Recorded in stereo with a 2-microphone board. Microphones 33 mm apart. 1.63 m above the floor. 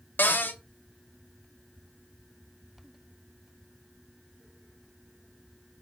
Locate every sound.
0.2 s a cupboard door: 70° left (ahead or behind), 0.5 m